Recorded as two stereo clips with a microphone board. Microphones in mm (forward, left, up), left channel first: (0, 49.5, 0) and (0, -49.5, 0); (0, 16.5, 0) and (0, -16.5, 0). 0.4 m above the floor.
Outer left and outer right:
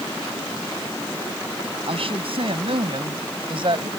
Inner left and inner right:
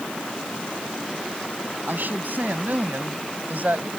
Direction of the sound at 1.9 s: 70° right (ahead or behind).